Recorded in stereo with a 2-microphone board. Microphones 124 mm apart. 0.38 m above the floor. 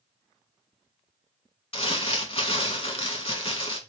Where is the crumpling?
50° left (ahead or behind), 0.7 m.